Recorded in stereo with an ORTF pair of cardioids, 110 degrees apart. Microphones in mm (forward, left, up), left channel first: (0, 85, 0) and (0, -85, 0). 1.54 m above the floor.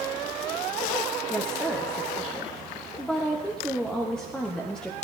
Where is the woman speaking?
5° left, 0.7 m.